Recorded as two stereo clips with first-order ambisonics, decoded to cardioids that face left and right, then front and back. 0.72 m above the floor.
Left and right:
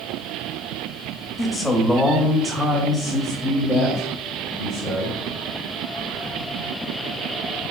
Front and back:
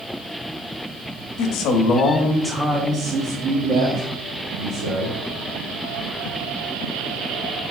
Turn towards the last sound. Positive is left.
turn(degrees=-170)